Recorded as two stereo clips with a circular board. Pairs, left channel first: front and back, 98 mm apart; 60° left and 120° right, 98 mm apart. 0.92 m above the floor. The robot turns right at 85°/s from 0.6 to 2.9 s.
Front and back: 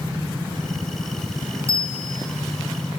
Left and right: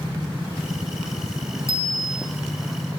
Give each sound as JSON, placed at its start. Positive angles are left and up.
{"t": 1.7, "sound": "a bicycle bell", "azimuth_deg": 120, "distance_m": 6.5}